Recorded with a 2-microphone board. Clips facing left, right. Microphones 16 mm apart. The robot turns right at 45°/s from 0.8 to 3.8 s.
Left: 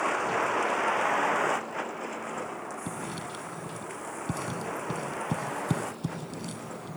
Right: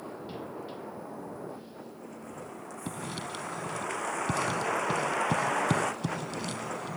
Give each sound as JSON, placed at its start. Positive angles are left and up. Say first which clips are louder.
{"t": 0.0, "sound": "a vehicle", "louder": "left 13 dB", "azimuth_deg": 75}
{"t": 2.9, "sound": "writing", "louder": "left 1 dB", "side_deg": -10}